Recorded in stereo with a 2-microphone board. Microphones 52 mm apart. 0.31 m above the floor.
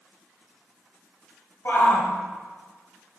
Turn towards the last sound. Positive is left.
turn(degrees=50)  # may be behind; listen again after turning